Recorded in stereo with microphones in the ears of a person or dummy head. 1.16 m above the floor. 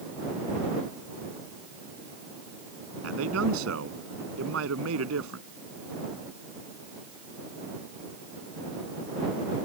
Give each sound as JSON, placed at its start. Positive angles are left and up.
{"t": 3.0, "sound": "a man speaking", "side_deg": -80}